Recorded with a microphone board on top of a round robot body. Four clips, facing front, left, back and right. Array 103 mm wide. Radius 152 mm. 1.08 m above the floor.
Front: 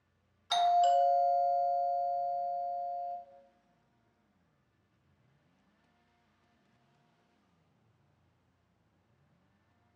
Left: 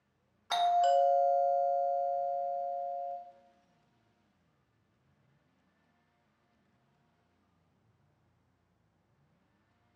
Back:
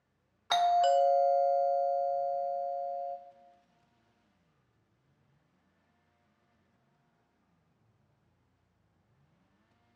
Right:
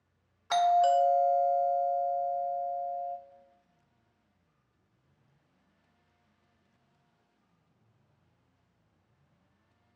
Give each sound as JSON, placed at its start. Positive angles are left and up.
{"t": 0.5, "sound": "a doorbell", "azimuth_deg": -165, "distance_m": 0.6}